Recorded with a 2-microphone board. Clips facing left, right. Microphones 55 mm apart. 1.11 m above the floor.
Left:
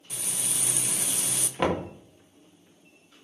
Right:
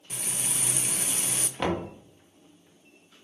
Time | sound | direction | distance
0.1 | frying | 30° right (ahead or behind) | 0.6 m
1.6 | knocking | 15° left (ahead or behind) | 1.4 m